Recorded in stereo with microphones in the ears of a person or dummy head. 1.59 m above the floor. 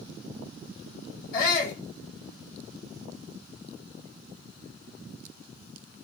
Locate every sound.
1.3 s a shout: 55° left (ahead or behind), 1.5 m